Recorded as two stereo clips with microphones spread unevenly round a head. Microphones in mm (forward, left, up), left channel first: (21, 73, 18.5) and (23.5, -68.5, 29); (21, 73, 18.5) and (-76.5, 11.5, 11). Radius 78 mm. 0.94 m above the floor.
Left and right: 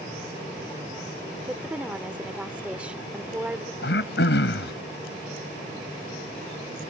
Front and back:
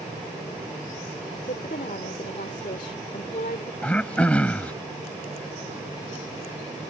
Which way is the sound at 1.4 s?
10° right.